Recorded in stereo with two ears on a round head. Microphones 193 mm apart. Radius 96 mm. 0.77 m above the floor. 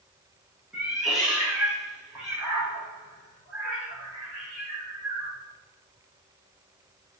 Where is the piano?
I don't hear a piano.